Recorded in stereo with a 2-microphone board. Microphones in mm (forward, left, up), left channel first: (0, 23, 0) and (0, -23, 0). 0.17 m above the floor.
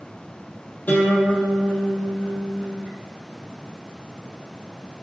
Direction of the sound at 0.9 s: 35° left (ahead or behind).